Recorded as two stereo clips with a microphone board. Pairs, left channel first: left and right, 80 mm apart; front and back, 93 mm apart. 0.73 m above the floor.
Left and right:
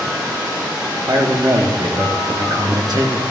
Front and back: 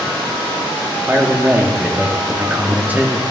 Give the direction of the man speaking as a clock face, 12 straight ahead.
4 o'clock.